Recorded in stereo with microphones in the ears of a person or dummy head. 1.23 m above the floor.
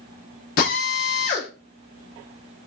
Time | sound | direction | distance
0.6 | a drill | 50° left (ahead or behind) | 0.9 m